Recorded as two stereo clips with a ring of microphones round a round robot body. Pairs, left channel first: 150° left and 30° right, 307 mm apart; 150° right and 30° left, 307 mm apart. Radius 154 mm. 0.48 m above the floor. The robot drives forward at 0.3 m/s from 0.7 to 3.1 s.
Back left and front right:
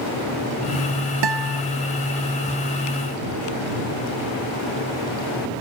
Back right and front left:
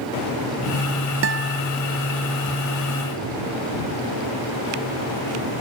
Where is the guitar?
20° right.